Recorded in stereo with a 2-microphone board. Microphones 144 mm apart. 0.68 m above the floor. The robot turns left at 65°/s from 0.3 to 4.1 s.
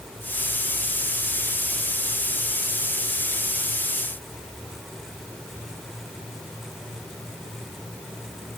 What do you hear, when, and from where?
Only background noise.